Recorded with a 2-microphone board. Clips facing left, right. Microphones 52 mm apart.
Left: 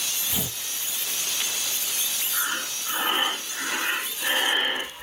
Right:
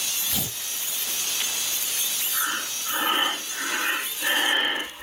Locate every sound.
0.3 s tearing paper: 15° left (ahead or behind), 3.5 m
2.3 s breathing: centre (ahead or behind), 0.9 m